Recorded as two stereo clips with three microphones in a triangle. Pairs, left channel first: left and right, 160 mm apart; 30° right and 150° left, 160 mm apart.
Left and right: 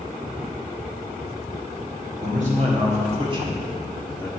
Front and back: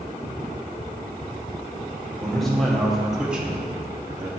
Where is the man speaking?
115° right, 2.5 m; by 4.3 s 125° left, 1.0 m.